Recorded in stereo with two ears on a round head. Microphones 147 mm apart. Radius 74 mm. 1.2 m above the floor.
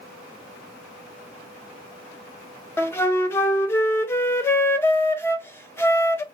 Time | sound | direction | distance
2.8 | a flute | 15° left (ahead or behind) | 0.5 m